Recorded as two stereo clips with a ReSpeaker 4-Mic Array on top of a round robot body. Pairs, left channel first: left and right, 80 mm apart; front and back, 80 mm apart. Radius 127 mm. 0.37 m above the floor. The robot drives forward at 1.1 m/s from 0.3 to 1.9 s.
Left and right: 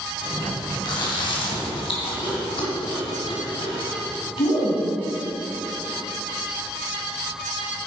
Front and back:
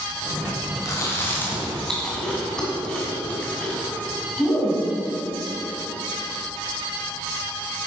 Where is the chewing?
55° left, 2.5 m; by 4.8 s 80° left, 2 m.